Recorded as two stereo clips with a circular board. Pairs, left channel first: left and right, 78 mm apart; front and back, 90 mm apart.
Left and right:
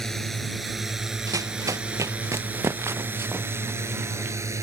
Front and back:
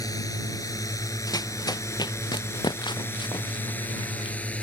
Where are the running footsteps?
45° right; by 4.3 s 25° right.